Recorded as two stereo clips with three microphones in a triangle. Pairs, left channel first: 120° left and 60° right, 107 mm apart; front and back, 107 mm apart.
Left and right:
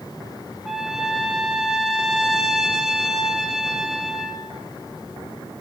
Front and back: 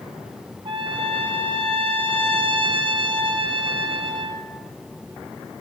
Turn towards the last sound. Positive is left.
turn(degrees=-145)